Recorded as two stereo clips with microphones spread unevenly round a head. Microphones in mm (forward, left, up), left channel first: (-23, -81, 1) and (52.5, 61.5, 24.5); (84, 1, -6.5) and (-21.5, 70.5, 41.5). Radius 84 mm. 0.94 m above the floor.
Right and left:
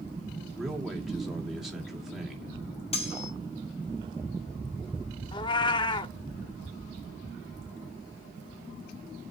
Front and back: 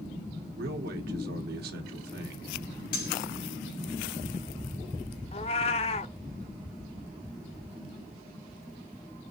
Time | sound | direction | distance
0.6 | a man speaking | 150° left | 2 m
2.9 | cutlery clinking | 65° right | 3 m
5.3 | a cat meowing | 80° right | 0.5 m